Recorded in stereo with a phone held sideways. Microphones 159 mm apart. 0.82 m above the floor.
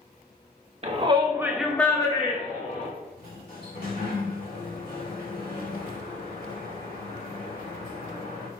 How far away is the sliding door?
About 1.6 m.